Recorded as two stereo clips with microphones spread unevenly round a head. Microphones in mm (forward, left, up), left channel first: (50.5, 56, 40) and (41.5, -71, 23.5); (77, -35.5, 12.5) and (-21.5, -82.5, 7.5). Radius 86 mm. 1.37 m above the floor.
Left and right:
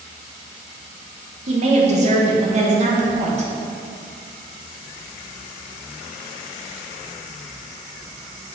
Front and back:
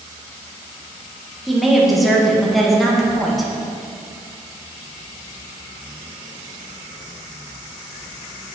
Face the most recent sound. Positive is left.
turn(degrees=-65)